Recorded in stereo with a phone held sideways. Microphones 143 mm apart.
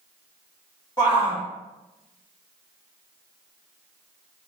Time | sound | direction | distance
1.0 | a shout | 30° left (ahead or behind) | 1.8 m